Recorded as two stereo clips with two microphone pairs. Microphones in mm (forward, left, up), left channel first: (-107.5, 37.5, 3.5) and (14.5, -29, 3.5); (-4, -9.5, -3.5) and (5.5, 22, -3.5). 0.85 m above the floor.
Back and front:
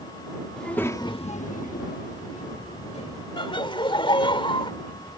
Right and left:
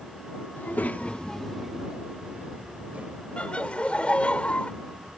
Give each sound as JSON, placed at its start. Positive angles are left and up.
{"t": 0.6, "sound": "a child speaking", "azimuth_deg": -125}
{"t": 3.4, "sound": "laughter", "azimuth_deg": -155}